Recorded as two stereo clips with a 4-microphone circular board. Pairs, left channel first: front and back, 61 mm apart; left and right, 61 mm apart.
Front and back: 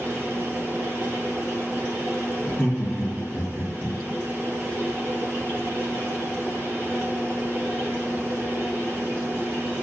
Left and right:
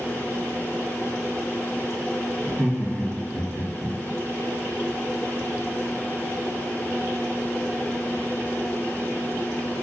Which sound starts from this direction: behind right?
Laughter, at 2.4 s.